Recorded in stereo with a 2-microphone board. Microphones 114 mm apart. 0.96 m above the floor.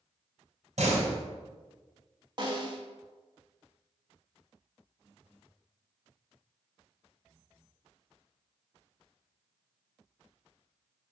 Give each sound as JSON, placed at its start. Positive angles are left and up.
{"t": 0.8, "sound": "a door slam", "side_deg": -80, "distance_m": 3.5}
{"t": 2.4, "sound": "a snare drum", "side_deg": -40, "distance_m": 1.8}